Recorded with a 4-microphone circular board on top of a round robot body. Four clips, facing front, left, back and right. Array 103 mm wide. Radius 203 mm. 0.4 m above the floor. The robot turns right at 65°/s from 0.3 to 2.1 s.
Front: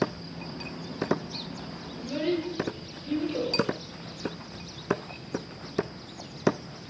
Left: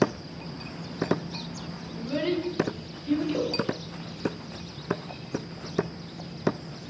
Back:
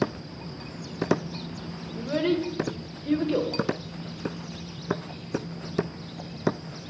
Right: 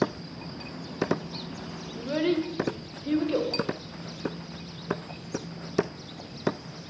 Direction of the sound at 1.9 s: 150° right.